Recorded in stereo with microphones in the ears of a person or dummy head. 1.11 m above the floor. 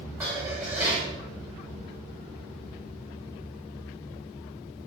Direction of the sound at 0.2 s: 10° right (ahead or behind).